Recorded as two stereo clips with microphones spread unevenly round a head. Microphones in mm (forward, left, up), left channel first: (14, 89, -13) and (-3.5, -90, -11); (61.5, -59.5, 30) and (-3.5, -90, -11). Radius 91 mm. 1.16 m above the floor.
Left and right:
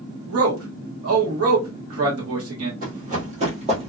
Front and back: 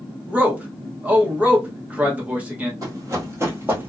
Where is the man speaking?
90° right, 1.0 m.